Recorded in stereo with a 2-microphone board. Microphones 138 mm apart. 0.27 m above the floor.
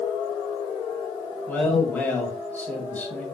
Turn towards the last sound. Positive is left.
turn(degrees=15)  # may be behind; listen again after turning